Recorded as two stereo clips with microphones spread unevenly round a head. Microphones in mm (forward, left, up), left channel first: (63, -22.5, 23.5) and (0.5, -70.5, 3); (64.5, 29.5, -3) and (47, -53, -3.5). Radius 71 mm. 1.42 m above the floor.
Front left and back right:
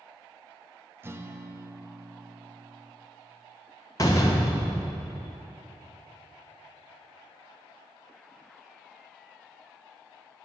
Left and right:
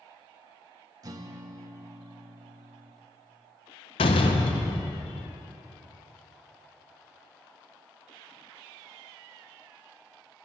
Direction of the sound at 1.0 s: 80° right.